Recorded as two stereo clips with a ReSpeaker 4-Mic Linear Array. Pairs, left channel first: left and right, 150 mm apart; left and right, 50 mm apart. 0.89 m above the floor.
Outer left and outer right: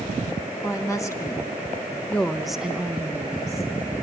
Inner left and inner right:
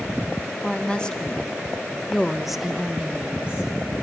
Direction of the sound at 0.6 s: 20° left (ahead or behind).